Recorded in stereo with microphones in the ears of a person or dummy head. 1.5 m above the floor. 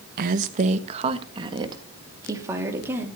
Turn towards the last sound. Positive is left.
turn(degrees=-15)  # may be behind; listen again after turning